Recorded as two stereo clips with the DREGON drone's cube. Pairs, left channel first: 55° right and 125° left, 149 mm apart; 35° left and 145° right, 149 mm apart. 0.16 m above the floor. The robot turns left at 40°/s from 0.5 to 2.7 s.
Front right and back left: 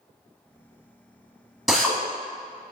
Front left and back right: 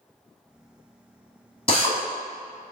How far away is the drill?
About 0.9 m.